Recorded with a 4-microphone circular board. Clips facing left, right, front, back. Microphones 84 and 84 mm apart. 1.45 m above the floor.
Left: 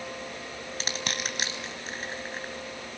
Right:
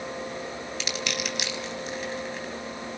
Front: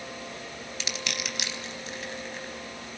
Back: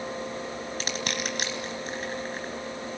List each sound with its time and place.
0.8 s crushing: 135° left, 3 m